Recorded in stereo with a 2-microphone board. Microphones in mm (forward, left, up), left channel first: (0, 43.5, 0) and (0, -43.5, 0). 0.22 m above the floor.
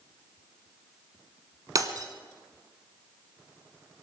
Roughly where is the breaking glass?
Right.